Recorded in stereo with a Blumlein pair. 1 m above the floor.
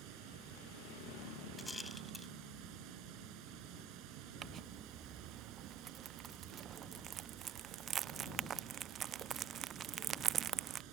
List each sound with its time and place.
0.0 s running water: 40° right
1.6 s a rattle: 5° left
4.4 s crumpling: 25° right